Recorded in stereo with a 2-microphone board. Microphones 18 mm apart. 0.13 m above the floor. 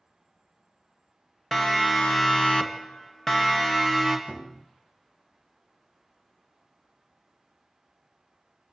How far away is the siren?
About 2.5 m.